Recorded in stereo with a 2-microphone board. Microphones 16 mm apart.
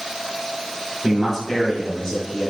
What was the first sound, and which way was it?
A man speaking, 20° right (ahead or behind).